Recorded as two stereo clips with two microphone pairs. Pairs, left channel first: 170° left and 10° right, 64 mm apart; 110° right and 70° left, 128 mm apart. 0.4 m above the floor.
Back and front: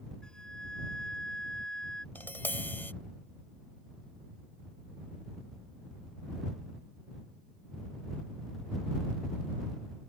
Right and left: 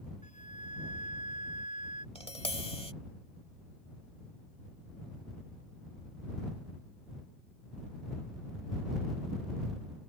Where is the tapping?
140° right.